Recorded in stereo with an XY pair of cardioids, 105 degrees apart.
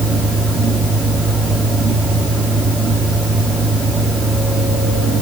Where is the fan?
45° right, 4 m.